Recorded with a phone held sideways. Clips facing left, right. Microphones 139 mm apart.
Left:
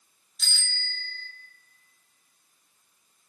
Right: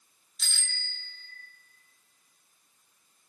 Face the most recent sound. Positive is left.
turn(degrees=0)  # may be behind; listen again after turning